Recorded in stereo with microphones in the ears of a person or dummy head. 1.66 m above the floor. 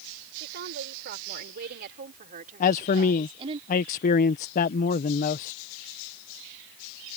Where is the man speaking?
45° left (ahead or behind).